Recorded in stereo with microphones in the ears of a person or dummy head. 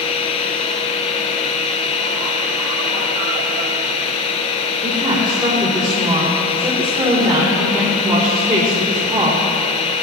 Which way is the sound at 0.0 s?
30° left (ahead or behind).